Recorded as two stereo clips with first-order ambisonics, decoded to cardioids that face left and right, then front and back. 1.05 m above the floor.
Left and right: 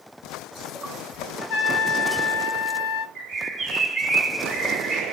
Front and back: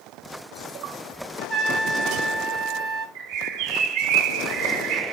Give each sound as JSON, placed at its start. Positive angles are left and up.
{"t": 1.4, "sound": "a trumpet", "azimuth_deg": 115, "distance_m": 2.0}
{"t": 3.1, "sound": "a bird", "azimuth_deg": -170, "distance_m": 2.5}